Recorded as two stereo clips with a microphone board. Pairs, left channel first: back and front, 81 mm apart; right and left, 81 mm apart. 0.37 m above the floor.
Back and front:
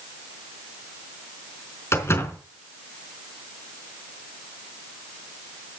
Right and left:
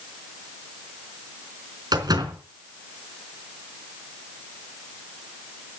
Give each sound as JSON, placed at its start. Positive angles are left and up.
{"t": 1.9, "sound": "a door slam", "azimuth_deg": 120, "distance_m": 4.0}